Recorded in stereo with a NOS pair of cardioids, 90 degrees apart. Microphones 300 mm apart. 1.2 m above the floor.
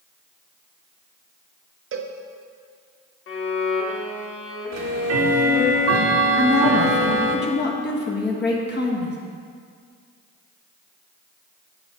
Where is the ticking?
60° right, 1.3 m.